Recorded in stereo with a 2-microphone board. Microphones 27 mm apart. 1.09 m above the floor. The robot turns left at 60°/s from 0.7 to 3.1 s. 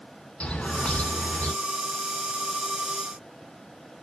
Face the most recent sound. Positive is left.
turn(degrees=-20)